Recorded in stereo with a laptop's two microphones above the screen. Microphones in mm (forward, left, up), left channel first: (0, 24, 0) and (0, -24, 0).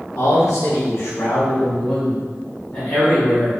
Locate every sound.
0.2 s a man speaking: 70° left (ahead or behind), 1.1 m; by 3.6 s 25° left (ahead or behind), 2 m